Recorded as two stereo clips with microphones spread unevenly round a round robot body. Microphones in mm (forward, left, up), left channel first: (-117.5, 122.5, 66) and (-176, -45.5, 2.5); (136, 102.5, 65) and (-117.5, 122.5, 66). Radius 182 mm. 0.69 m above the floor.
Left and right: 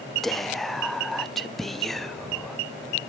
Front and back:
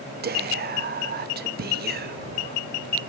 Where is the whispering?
170° right, 0.6 m.